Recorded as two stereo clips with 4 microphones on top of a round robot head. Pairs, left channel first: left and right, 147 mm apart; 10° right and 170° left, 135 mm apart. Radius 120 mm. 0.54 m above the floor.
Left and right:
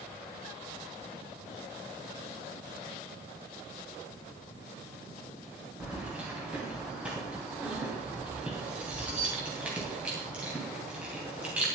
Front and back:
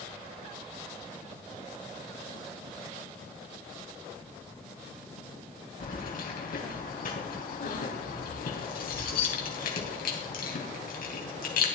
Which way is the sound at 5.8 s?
5° right.